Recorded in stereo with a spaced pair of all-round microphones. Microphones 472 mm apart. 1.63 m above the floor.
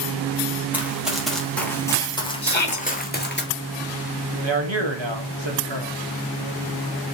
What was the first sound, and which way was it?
Running footsteps, 5° right (ahead or behind).